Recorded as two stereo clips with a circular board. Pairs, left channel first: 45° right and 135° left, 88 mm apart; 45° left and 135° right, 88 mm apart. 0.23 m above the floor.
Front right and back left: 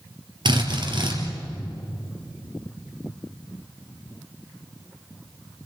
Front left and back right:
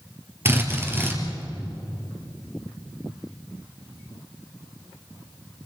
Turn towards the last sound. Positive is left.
turn(degrees=160)